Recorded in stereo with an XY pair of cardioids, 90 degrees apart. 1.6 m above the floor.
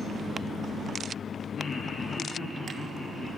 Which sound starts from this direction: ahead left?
Laughter, at 1.6 s.